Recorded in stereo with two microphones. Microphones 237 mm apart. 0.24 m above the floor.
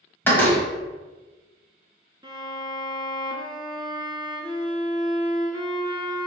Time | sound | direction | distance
0.2 | a door slam | 10° left (ahead or behind) | 1.1 m
2.2 | a violin | 20° right (ahead or behind) | 0.7 m